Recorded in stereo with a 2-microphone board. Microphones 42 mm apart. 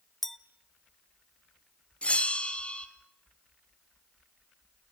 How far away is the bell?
About 1.7 m.